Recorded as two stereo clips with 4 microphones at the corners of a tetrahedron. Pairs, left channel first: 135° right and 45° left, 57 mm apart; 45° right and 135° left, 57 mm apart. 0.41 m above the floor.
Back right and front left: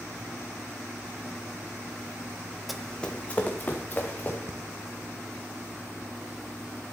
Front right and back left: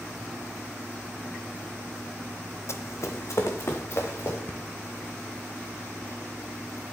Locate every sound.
2.7 s running footsteps: 45° right, 0.7 m; by 4.4 s 80° right, 2.5 m
4.5 s breathing: 15° left, 1.3 m